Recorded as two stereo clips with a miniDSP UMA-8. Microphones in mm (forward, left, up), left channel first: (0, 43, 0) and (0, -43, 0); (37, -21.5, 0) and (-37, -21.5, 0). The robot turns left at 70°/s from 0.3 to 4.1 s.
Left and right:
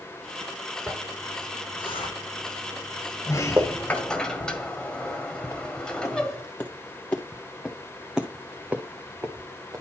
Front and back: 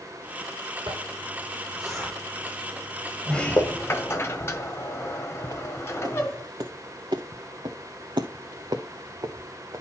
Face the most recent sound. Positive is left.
turn(degrees=-140)